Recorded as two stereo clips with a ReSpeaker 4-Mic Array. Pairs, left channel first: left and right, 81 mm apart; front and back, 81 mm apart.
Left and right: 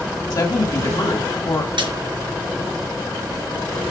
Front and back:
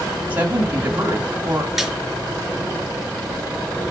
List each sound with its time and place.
0.3 s a woman speaking: 115° left, 1.8 m
1.8 s a snare drum: 95° right, 4.5 m